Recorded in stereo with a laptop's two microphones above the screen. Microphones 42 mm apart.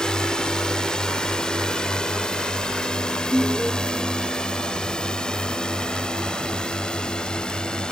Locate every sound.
0.0 s a drone: 15° left (ahead or behind); by 7.9 s 20° left (ahead or behind)
3.3 s an alarm: 5° left (ahead or behind)